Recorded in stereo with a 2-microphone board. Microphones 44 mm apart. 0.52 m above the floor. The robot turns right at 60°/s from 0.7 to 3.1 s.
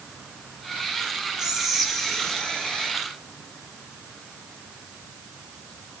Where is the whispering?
30° right, 0.7 m; by 2.9 s 65° left, 0.7 m.